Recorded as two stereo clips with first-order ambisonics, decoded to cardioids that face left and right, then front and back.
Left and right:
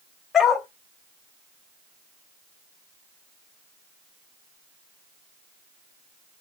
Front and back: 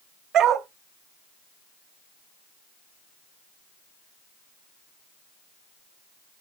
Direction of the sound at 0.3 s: 150° left.